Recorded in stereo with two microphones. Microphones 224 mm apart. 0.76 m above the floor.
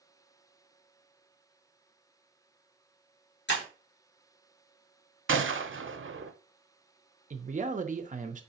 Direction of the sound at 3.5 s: 50° left (ahead or behind).